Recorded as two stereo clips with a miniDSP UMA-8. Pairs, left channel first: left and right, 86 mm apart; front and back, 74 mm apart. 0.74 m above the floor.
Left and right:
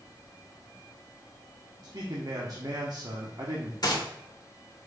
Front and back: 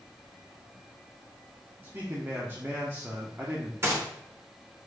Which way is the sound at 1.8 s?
125° right.